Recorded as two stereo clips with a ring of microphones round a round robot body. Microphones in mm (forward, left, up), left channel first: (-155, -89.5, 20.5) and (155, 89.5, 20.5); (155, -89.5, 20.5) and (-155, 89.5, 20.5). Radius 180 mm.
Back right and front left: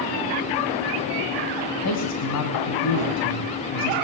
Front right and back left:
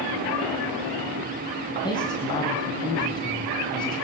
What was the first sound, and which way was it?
A man speaking, 110° right.